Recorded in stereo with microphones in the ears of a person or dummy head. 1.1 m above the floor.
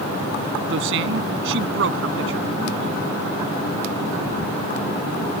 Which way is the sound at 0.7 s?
80° right.